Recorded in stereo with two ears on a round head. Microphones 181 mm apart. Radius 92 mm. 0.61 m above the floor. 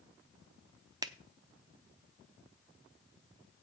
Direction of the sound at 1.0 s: 20° right (ahead or behind).